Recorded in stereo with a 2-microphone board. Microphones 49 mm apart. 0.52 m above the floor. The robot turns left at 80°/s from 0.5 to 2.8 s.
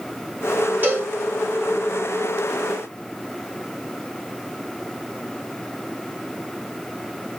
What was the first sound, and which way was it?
A cowbell, 35° right (ahead or behind).